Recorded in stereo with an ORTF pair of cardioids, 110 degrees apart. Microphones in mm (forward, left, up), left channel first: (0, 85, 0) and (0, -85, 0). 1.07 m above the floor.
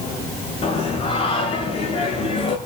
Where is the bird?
No bird in this recording.